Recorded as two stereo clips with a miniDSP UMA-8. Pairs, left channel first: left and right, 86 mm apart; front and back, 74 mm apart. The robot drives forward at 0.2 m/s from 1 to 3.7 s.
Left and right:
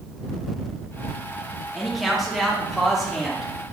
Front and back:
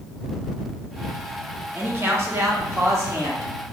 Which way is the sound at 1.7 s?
Straight behind.